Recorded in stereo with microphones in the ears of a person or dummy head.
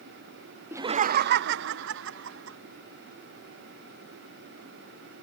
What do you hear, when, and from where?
0.7 s laughter: 10° right (ahead or behind); by 2.6 s 80° right